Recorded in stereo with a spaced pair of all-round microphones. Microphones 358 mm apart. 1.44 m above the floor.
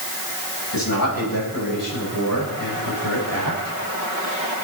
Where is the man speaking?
75° left (ahead or behind), 7 m; by 3.8 s 70° left (ahead or behind), 5.5 m.